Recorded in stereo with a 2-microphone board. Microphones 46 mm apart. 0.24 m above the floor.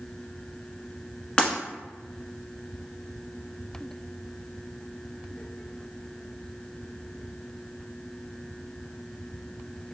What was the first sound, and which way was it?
Breaking glass, 25° left (ahead or behind).